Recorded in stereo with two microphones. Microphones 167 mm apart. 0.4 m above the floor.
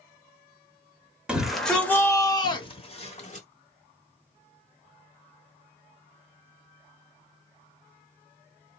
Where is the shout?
5° right (ahead or behind), 1.1 m; by 3.5 s 45° left (ahead or behind), 1.3 m.